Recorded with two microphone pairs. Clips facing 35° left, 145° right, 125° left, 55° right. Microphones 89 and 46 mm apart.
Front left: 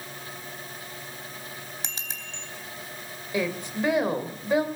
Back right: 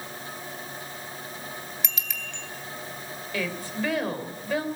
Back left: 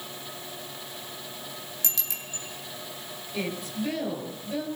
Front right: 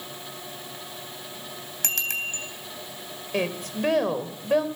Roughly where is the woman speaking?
Ahead right.